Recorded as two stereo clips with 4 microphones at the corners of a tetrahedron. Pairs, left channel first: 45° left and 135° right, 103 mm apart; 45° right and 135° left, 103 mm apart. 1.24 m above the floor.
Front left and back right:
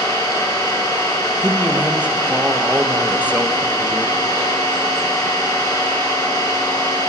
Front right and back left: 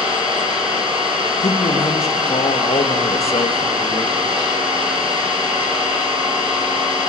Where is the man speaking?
60° right, 1.4 m.